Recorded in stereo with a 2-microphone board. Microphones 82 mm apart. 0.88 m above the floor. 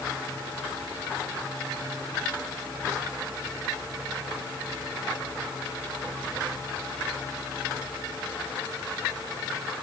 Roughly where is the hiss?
I don't hear a hiss.